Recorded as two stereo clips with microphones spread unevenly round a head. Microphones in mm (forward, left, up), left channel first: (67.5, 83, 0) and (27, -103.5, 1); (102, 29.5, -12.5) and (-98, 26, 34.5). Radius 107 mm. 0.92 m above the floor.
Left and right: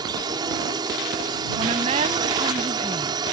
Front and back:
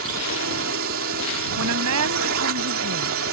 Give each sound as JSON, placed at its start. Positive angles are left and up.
{"t": 0.0, "sound": "a drone", "azimuth_deg": -170}
{"t": 1.6, "sound": "a woman speaking", "azimuth_deg": -165}